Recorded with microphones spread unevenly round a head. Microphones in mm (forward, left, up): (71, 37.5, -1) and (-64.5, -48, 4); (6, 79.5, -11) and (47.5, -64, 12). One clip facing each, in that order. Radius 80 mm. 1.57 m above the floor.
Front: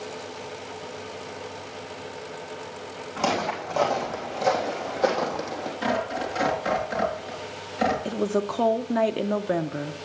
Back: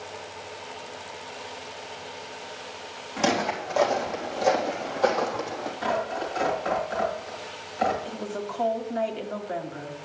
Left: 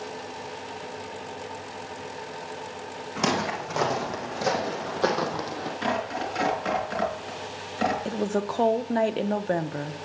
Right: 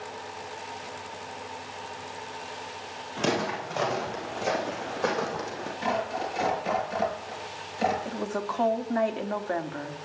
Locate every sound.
3.2 s footsteps: 135° left, 4.5 m; by 5.7 s 95° left, 3 m
5.8 s tearing paper: 90° left, 4.5 m
8.1 s a woman speaking: 50° left, 0.9 m